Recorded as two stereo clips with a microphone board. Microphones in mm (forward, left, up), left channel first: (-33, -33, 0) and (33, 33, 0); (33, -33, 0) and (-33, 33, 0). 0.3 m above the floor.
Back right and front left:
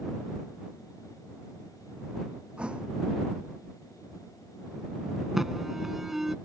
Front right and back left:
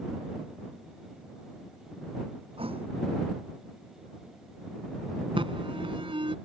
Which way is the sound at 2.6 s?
125° left.